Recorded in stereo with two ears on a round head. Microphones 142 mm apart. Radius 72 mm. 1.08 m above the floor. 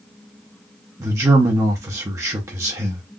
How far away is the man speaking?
About 0.7 m.